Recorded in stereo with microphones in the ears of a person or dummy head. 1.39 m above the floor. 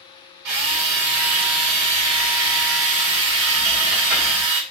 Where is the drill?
60° right (ahead or behind), 0.9 m.